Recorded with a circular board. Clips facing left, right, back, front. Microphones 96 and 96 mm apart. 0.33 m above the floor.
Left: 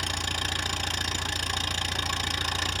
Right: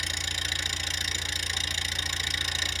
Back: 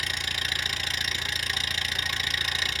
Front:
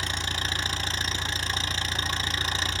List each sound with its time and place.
0.0 s an engine running: 55° left, 0.8 m